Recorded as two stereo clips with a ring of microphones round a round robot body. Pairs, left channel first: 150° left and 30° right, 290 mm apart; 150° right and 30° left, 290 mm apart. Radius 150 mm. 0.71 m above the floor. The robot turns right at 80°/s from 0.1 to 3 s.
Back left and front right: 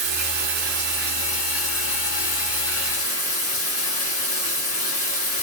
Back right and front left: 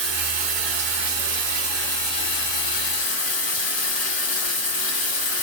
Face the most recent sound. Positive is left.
turn(degrees=-145)